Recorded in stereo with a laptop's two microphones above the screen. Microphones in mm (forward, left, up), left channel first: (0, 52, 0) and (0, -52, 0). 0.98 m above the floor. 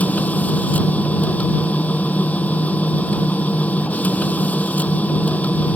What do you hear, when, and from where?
0.0 s a machine running: 15° left (ahead or behind)